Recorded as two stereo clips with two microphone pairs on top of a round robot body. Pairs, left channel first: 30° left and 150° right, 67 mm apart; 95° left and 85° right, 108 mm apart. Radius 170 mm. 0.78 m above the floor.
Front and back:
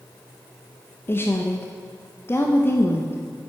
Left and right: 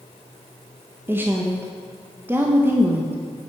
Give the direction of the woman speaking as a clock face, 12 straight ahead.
12 o'clock.